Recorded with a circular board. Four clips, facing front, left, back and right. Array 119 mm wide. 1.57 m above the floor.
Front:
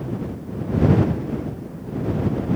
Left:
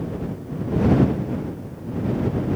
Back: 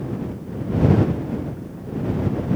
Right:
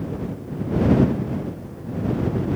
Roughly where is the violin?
No violin in this recording.